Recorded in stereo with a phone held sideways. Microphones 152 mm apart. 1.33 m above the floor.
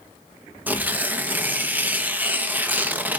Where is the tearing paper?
10° right (ahead or behind), 1.1 m.